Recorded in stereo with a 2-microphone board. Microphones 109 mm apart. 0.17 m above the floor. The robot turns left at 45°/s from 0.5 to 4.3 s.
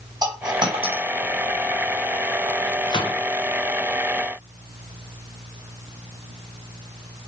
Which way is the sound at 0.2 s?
40° right (ahead or behind).